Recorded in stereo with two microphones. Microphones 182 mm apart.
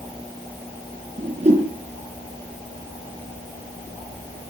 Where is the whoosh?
40° right (ahead or behind), 4 m.